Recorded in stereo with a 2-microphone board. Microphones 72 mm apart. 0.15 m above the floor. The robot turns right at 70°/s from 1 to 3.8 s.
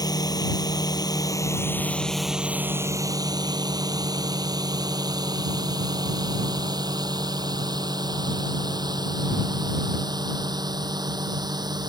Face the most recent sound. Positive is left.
turn(degrees=-75)  # may be behind; listen again after turning